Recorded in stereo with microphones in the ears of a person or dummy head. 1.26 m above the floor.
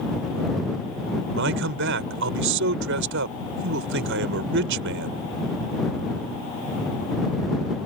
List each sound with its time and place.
1.4 s a man speaking: 65° right (ahead or behind)